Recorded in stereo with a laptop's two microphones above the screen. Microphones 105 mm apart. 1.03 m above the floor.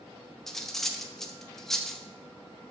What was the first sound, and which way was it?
Cutlery clinking, 5° left (ahead or behind).